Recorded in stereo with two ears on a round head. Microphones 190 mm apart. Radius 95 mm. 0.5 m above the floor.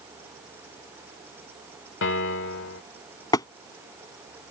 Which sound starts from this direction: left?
A piano, at 2.0 s.